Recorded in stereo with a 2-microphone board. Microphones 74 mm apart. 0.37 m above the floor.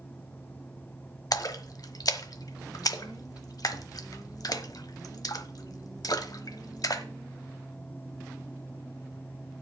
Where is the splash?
60° left (ahead or behind), 1.0 m.